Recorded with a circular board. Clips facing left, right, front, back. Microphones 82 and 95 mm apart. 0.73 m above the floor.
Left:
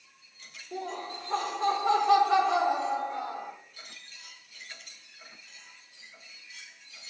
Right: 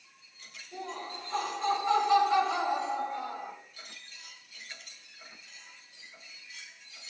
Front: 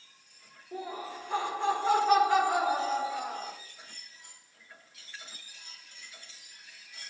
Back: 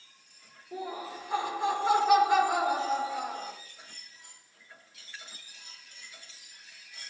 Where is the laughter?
100° left, 2.5 m.